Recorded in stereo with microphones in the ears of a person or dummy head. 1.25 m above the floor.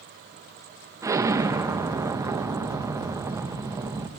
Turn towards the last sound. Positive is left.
turn(degrees=-15)  # may be behind; listen again after turning